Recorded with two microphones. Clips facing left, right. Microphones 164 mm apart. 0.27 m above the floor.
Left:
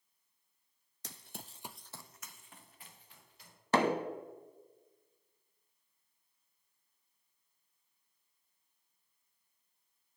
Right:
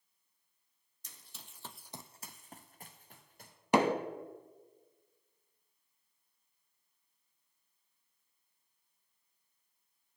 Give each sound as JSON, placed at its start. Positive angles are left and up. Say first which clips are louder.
{"t": 1.0, "sound": "running footsteps", "louder": "left 9 dB", "side_deg": 75, "distance_m": 0.8}
{"t": 3.7, "sound": "hammering", "louder": "right 2 dB", "side_deg": -15, "distance_m": 1.1}